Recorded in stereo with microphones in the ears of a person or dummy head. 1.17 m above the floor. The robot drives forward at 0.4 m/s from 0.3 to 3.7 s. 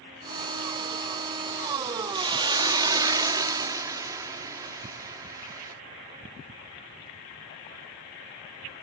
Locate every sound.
2.1 s a hiss: 25° right (ahead or behind); by 5.8 s 20° right (ahead or behind)